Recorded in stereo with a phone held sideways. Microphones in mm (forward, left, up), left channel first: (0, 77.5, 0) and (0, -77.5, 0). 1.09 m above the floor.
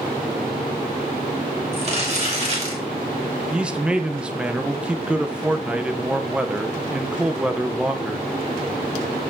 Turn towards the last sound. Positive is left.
turn(degrees=-5)  # may be behind; listen again after turning